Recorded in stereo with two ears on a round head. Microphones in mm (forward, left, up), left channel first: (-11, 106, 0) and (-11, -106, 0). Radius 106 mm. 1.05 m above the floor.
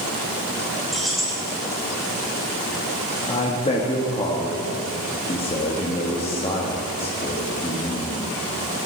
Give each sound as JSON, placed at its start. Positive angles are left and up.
{"t": 0.9, "sound": "keys jangling", "side_deg": 0, "distance_m": 2.5}
{"t": 3.3, "sound": "a man speaking", "side_deg": 25, "distance_m": 1.3}